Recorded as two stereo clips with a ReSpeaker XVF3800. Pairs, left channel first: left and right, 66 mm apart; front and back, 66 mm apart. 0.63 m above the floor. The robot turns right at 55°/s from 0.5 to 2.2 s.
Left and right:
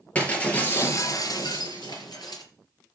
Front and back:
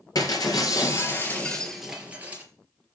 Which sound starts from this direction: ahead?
Breaking glass, at 0.1 s.